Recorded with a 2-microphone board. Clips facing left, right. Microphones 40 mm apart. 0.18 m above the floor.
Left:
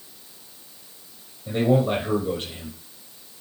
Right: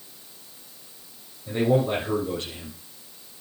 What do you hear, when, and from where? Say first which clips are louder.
1.5 s a man speaking: left 1 dB; 30° left (ahead or behind), 6 m